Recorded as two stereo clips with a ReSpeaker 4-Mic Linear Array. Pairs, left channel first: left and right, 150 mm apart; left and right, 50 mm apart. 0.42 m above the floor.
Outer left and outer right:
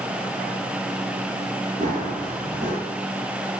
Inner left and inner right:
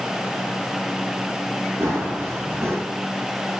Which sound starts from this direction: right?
Running footsteps, at 1.8 s.